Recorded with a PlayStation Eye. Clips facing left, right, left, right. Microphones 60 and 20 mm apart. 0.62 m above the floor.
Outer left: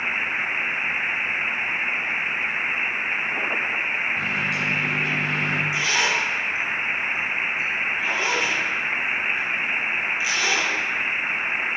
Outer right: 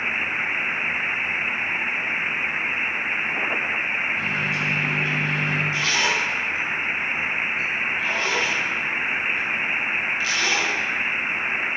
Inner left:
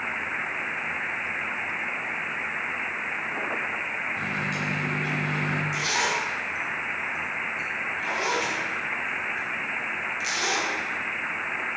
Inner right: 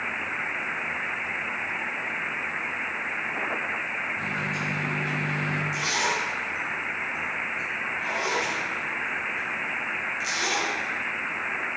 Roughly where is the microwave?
Left.